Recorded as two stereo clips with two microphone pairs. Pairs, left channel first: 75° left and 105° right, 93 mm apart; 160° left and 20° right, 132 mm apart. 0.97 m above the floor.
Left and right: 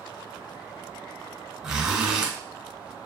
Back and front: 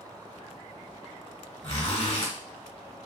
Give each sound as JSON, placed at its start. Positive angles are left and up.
{"t": 1.6, "sound": "a zipper", "azimuth_deg": 175, "distance_m": 1.2}